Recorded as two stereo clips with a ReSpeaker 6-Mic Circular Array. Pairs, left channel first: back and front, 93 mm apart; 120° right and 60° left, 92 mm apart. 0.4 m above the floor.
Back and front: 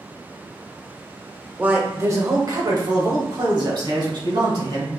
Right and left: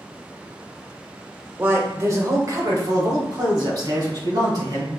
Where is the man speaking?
45° left, 0.8 m; by 4.9 s 20° left, 2.5 m.